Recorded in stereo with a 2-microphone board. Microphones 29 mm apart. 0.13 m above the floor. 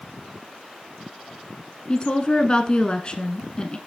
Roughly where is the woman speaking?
Left.